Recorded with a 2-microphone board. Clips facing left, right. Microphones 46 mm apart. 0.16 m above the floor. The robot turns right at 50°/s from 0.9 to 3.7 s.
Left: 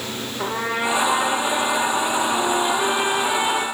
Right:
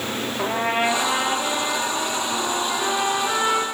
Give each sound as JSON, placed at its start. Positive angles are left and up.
{"t": 0.4, "sound": "a trumpet", "azimuth_deg": -60, "distance_m": 5.0}